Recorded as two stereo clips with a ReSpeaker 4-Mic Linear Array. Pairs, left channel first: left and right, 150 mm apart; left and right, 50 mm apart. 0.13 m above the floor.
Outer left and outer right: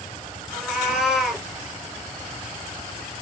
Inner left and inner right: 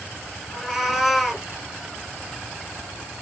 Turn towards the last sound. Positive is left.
turn(degrees=-5)  # may be behind; listen again after turning